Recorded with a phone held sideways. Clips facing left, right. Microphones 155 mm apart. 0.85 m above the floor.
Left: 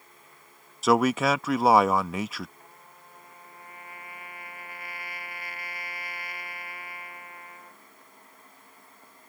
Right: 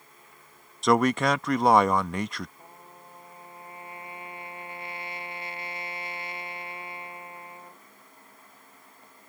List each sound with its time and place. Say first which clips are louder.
0.8 s a man speaking: even; 5° left (ahead or behind)
2.6 s a trumpet: right 3 dB; 25° right (ahead or behind)